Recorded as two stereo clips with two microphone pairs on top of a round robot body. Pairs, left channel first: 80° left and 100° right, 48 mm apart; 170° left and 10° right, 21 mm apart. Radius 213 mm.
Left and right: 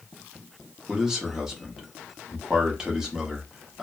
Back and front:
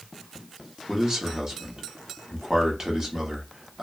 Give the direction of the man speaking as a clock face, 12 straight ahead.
1 o'clock.